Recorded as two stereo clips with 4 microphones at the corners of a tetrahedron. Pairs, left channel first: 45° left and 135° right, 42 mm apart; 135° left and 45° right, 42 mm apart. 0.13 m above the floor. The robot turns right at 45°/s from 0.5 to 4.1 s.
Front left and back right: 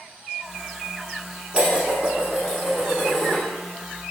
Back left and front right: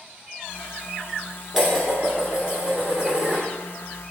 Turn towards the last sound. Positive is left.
turn(degrees=-5)